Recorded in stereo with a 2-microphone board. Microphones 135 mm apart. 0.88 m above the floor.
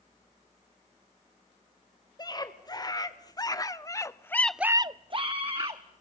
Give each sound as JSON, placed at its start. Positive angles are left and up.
{"t": 2.2, "sound": "a scream", "side_deg": 30, "distance_m": 3.5}